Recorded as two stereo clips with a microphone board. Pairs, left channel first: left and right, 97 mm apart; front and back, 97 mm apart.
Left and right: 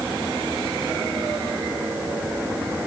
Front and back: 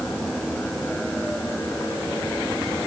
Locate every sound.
Only background noise.